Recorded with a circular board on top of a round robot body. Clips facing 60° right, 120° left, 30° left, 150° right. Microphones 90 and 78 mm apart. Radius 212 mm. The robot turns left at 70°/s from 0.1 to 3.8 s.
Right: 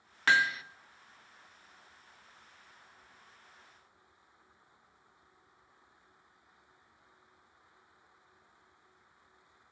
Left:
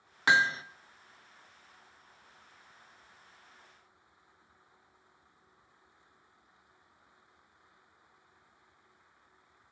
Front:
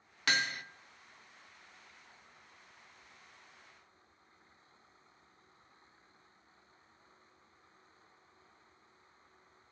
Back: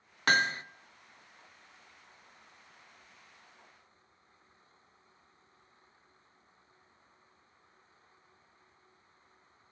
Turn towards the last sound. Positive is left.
turn(degrees=-60)